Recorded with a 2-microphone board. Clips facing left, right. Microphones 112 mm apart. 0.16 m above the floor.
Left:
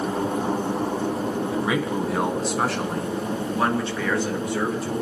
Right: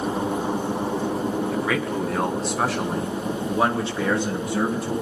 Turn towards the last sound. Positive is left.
turn(degrees=-30)  # may be behind; listen again after turning